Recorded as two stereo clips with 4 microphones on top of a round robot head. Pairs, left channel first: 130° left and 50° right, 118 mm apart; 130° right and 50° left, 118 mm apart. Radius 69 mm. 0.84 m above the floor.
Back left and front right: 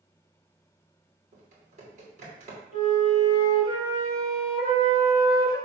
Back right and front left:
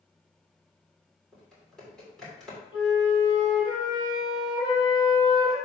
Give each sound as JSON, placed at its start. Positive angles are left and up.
{"t": 1.3, "sound": "typing on a keyboard", "azimuth_deg": -40, "distance_m": 2.5}
{"t": 2.7, "sound": "a flute", "azimuth_deg": -80, "distance_m": 3.5}